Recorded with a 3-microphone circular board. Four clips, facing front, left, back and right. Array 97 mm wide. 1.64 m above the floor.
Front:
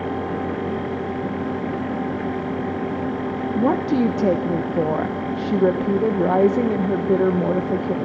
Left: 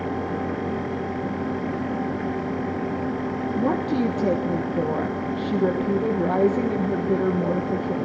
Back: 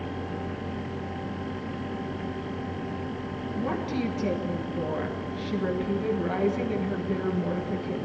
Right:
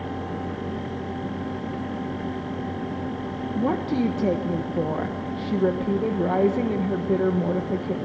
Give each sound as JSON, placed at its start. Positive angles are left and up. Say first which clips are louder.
{"t": 3.5, "sound": "a woman speaking", "louder": "even, front 10 dB", "azimuth_deg": -5, "distance_m": 1.4}